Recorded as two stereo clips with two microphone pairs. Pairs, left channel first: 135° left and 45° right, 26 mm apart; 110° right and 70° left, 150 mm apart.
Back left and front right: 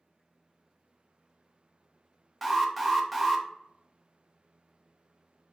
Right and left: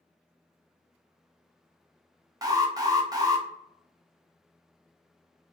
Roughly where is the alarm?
Ahead left.